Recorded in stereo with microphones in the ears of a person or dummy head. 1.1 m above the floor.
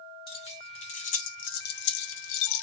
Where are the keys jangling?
30° left (ahead or behind), 1.5 m; by 2.6 s 70° left (ahead or behind), 0.8 m.